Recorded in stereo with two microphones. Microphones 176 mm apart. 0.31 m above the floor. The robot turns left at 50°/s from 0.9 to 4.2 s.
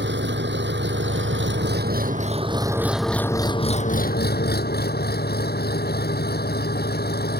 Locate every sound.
0.0 s an engine running: 75° right; by 7.4 s 120° left